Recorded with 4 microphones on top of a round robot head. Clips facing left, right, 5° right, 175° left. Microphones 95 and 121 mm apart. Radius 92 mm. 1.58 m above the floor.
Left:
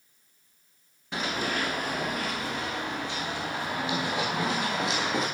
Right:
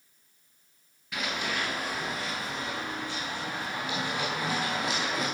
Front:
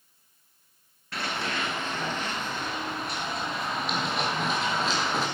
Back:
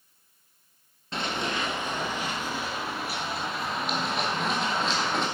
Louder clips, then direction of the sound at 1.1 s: Left 3 dB, back 2 dB; 125° left.